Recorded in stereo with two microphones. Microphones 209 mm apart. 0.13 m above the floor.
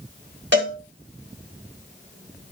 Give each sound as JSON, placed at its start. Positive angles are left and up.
{"t": 0.5, "sound": "a cowbell", "side_deg": -65, "distance_m": 6.0}